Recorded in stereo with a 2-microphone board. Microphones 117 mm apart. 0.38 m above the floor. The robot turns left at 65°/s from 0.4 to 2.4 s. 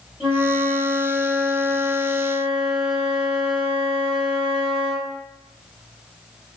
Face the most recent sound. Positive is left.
turn(degrees=-95)